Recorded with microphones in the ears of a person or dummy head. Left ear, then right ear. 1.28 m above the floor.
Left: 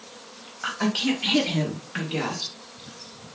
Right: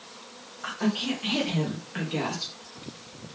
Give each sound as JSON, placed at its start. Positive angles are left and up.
{"t": 0.6, "sound": "a woman speaking", "side_deg": 45, "distance_m": 1.3}